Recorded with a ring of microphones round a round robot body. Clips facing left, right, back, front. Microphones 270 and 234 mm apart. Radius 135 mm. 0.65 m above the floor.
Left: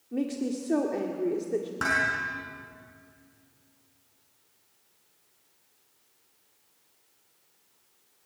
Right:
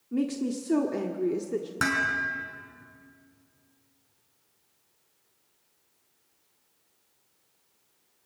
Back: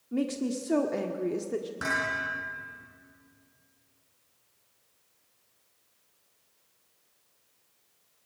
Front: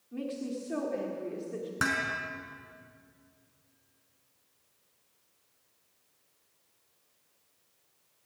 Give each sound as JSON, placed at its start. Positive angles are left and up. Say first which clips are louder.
{"t": 0.1, "sound": "a woman speaking", "louder": "right 1 dB, back 6 dB", "azimuth_deg": -155, "distance_m": 1.4}
{"t": 1.8, "sound": "dishes clattering", "louder": "right 3 dB, even", "azimuth_deg": -40, "distance_m": 5.0}